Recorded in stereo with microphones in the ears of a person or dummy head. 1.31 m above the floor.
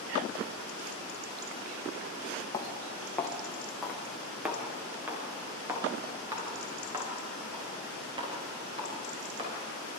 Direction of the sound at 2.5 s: 30° left (ahead or behind).